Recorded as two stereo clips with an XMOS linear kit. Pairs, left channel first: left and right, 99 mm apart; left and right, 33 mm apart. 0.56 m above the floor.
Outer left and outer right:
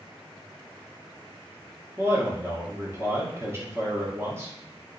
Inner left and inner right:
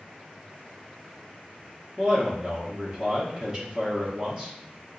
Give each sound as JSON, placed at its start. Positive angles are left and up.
{"t": 2.0, "sound": "a man speaking", "side_deg": -25, "distance_m": 0.8}